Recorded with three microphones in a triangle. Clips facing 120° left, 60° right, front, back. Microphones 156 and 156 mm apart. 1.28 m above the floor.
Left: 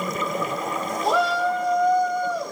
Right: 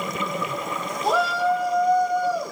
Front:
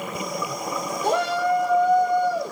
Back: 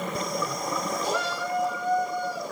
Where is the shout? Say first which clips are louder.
Right 1 dB, front 7 dB; 30° left, 1.8 m; by 2.5 s 25° left, 3 m.